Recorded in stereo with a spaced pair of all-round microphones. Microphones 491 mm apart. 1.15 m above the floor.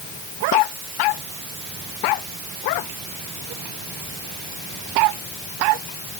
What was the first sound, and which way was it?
Only background noise.